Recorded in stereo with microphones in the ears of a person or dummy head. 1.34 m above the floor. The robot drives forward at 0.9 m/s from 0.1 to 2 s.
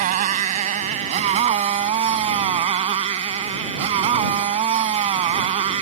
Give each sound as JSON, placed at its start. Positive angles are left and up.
{"t": 0.0, "sound": "a motorcycle", "side_deg": -45}